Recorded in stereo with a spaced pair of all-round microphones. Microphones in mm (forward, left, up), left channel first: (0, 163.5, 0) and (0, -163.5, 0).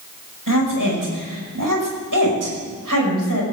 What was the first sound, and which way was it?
A woman speaking, 80° right.